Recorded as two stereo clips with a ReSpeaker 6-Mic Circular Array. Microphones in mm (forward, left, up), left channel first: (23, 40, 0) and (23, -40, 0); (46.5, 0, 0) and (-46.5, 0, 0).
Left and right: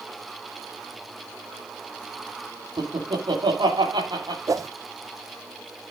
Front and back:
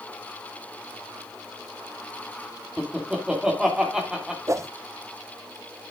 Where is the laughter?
95° right, 2.5 m.